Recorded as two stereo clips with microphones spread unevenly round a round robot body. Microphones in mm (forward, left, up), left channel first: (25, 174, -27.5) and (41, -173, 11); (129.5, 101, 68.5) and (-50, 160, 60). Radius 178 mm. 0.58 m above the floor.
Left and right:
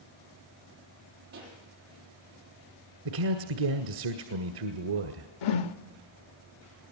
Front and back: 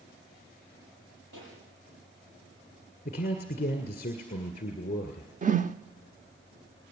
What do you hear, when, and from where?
1.3 s a pop: 150° right, 6.5 m
3.0 s a man speaking: 80° right, 1.7 m
5.4 s a whoosh: 110° left, 1.0 m